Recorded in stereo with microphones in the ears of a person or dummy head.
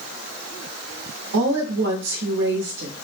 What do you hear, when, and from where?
1.3 s a woman speaking: 60° right (ahead or behind), 0.7 m